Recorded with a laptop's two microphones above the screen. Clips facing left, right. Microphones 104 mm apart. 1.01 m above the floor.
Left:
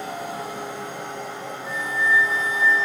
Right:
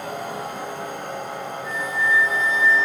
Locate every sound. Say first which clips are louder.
0.0 s a machine running: right 1 dB; 55° right (ahead or behind), 5 m
1.6 s a flute: even; 35° left (ahead or behind), 9 m